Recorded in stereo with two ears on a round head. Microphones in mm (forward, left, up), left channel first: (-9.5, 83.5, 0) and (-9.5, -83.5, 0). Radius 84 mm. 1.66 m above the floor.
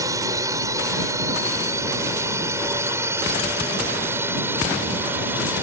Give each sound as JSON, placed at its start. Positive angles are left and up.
{"t": 0.0, "sound": "a drone", "side_deg": -20}